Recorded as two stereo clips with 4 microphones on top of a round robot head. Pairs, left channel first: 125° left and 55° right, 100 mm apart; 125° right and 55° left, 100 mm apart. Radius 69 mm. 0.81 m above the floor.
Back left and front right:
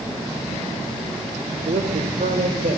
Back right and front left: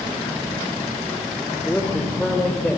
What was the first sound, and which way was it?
A man speaking, 45° right.